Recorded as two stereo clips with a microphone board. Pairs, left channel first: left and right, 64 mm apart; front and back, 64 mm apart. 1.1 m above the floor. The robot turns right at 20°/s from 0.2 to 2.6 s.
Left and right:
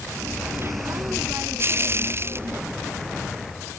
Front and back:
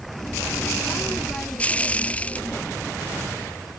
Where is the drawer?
No drawer in this recording.